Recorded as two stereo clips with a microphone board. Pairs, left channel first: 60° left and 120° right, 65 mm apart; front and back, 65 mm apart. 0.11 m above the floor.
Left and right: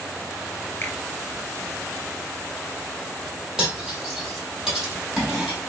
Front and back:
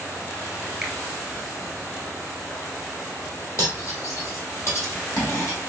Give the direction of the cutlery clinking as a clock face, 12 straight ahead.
1 o'clock.